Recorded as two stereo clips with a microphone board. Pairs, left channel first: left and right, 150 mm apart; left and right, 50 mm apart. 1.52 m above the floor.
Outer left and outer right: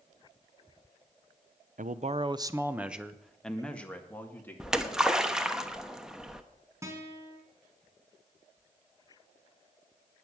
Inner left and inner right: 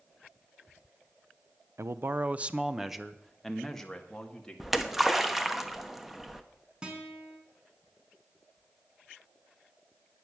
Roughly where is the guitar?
Centre.